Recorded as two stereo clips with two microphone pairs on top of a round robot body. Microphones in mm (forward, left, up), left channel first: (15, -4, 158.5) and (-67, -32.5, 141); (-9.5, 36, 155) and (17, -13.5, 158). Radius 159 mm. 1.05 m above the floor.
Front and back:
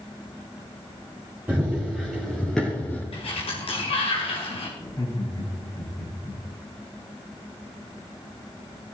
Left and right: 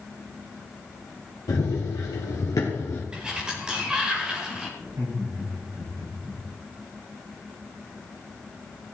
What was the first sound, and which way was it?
Running footsteps, 120° left.